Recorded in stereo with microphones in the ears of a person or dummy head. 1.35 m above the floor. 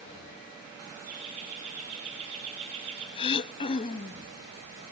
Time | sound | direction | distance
1.1 | laughter | 35° right (ahead or behind) | 5 m
3.2 | throat clearing | 35° left (ahead or behind) | 0.5 m